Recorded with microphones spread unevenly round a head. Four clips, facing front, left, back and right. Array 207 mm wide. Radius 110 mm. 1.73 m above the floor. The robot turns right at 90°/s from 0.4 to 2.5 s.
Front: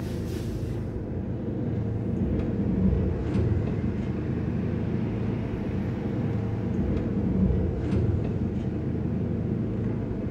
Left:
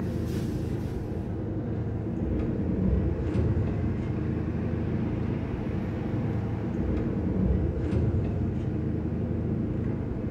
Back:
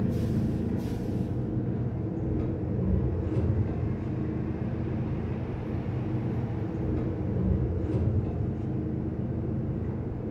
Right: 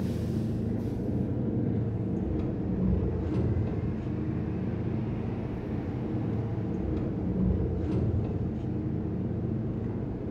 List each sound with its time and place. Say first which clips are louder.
0.0 s an engine running: even, back 3 dB; 175° right, 1.8 m; by 10.3 s 10° left, 1.8 m